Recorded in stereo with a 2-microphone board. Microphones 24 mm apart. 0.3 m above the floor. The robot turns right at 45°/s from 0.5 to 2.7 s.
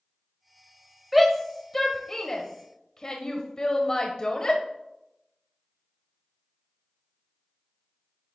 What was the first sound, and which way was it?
A shout, 5° right (ahead or behind).